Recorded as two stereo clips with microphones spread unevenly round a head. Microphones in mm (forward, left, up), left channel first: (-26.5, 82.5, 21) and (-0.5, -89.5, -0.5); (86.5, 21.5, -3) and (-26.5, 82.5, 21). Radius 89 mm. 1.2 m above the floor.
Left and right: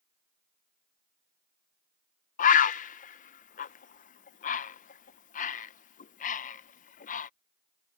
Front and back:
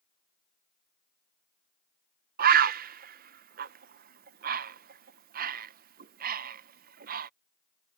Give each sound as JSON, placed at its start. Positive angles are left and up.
{"t": 2.4, "sound": "a bird", "azimuth_deg": 145}